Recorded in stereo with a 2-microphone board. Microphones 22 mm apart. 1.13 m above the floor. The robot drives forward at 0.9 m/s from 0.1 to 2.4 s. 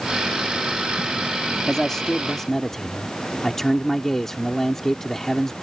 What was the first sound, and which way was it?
A man speaking, 25° left (ahead or behind).